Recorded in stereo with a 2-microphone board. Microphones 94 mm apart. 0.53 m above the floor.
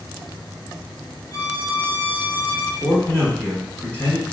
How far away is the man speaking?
About 1.8 m.